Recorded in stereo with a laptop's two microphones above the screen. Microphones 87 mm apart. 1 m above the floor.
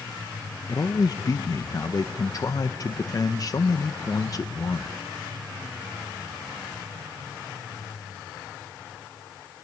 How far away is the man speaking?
About 0.6 m.